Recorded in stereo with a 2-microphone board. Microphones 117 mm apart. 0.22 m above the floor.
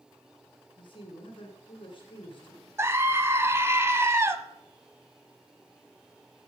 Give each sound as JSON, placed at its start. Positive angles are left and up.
{"t": 0.8, "sound": "a man speaking", "side_deg": 45, "distance_m": 2.0}
{"t": 2.8, "sound": "a scream", "side_deg": -20, "distance_m": 1.1}